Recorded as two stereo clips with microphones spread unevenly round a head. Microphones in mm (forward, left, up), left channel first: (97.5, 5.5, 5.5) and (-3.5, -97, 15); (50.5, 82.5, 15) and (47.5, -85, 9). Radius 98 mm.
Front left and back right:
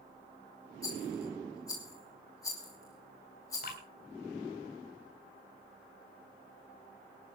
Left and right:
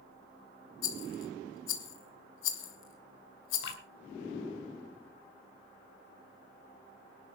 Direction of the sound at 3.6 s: 85° left.